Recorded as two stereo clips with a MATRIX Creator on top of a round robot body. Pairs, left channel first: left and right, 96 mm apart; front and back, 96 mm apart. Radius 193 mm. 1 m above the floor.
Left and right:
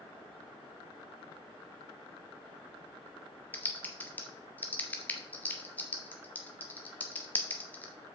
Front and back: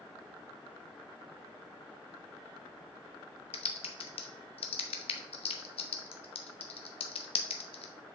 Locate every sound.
3.5 s typing on a keyboard: 15° left, 0.5 m